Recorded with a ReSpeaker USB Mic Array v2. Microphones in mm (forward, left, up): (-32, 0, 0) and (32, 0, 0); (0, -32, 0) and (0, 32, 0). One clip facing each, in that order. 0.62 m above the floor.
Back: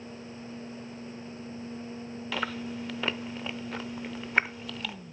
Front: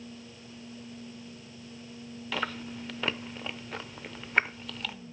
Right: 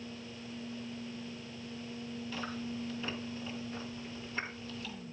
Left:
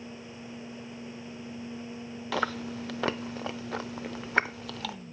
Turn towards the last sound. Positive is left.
turn(degrees=90)